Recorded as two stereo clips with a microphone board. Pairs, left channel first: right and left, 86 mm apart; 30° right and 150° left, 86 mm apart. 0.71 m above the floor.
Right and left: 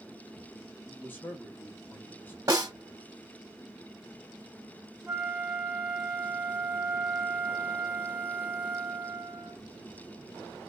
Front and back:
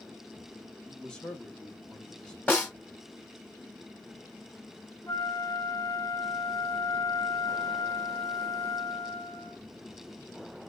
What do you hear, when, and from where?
0.9 s a man speaking: 95° right, 0.9 m
2.5 s a snare drum: 40° left, 0.8 m
5.1 s a flute: 20° left, 0.7 m